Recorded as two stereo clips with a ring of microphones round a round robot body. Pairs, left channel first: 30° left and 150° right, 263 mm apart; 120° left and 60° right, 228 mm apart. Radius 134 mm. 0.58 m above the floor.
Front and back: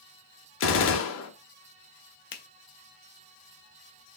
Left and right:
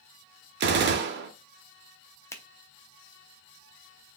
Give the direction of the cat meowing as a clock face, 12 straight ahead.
I don't hear a cat meowing.